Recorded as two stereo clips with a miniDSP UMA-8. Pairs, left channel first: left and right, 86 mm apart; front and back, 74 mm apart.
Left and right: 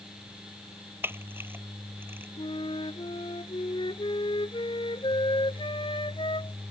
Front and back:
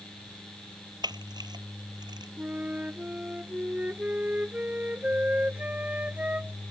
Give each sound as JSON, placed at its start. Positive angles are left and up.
{"t": 1.0, "sound": "a camera shutter", "azimuth_deg": -155}
{"t": 2.4, "sound": "a flute", "azimuth_deg": 110}